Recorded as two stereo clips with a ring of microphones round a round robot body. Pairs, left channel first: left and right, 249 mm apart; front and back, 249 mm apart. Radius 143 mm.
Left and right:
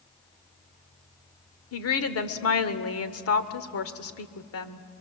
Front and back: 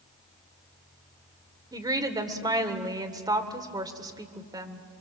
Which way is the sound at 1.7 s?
105° left.